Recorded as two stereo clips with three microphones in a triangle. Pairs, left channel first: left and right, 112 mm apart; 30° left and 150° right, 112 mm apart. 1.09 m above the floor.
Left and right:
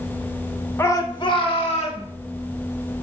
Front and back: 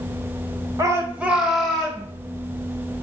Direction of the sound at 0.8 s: 160° left.